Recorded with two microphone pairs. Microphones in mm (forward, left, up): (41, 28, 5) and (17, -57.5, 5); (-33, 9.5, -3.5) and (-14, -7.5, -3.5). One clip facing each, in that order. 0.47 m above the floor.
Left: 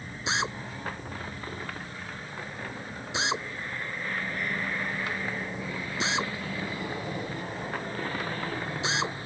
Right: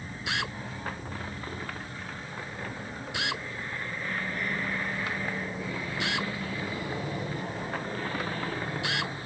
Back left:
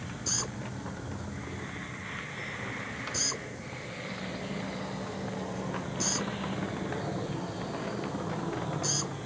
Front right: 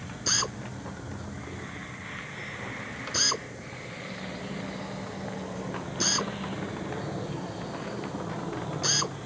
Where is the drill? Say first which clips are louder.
Left 3 dB, front right 7 dB; 5° left.